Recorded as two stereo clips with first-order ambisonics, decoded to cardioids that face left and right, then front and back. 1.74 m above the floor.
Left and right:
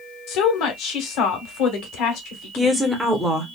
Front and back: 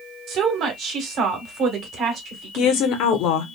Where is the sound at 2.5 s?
10° right, 0.8 m.